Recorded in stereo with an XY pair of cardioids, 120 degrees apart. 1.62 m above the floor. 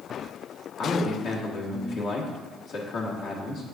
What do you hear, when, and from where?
0.8 s a man speaking: 60° left, 1.7 m